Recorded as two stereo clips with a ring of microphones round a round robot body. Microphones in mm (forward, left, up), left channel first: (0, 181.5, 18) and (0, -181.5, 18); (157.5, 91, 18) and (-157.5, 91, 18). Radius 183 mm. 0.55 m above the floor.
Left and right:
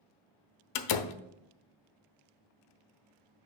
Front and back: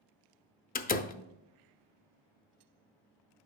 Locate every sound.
0.8 s a door slam: 65° left, 0.5 m